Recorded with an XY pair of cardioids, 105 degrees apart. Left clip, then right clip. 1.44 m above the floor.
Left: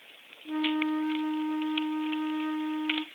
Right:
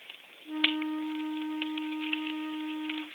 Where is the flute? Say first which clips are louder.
Even; 40° left, 0.8 m.